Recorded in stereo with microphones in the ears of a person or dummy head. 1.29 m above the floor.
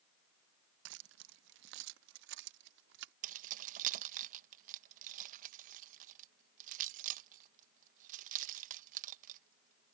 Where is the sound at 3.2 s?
45° right (ahead or behind).